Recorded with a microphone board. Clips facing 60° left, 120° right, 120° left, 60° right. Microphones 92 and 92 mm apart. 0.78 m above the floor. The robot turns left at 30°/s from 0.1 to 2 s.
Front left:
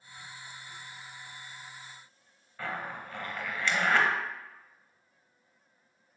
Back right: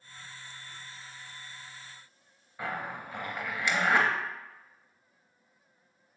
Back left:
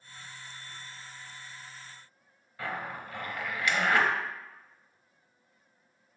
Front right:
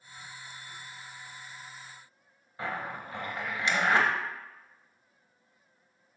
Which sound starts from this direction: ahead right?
A zipper, at 2.6 s.